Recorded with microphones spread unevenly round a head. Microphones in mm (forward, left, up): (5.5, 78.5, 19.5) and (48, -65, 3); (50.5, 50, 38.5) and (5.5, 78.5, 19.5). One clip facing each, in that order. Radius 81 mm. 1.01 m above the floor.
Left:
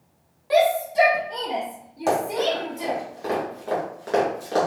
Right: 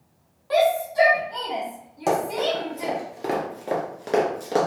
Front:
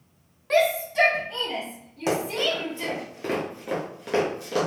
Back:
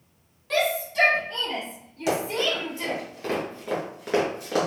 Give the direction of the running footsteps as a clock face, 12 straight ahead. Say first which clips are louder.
Left 1 dB, even; 12 o'clock.